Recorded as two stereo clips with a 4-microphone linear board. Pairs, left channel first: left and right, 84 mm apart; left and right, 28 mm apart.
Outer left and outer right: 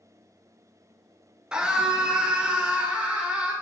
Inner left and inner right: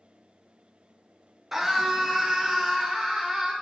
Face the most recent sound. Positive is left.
turn(degrees=-15)  # may be behind; listen again after turning